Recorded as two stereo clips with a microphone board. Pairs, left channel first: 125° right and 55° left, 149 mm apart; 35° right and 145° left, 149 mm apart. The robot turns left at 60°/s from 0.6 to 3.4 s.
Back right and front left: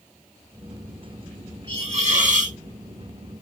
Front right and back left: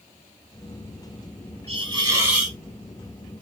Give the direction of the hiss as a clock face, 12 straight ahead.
8 o'clock.